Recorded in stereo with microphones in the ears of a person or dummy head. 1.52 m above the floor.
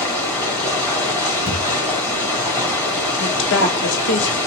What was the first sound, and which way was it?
Running water, 5° left (ahead or behind).